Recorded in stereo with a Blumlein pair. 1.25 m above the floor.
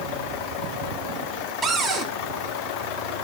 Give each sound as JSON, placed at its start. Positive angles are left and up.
{"t": 1.6, "sound": "a cupboard door", "azimuth_deg": -20, "distance_m": 1.7}